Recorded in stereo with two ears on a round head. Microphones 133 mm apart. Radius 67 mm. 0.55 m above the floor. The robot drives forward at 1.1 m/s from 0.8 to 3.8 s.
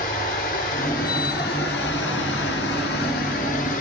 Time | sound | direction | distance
0.0 | running water | 55° left (ahead or behind) | 2.5 m